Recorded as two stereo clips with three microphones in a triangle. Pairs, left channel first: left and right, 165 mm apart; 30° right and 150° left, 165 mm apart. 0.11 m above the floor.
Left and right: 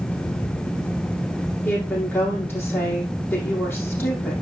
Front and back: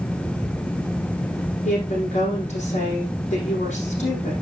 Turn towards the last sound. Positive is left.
turn(degrees=15)